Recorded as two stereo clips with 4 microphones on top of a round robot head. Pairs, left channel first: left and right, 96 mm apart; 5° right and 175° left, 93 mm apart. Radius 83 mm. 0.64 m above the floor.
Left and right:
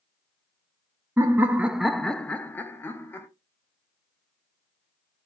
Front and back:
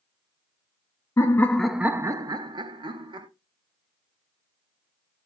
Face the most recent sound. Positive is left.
turn(degrees=155)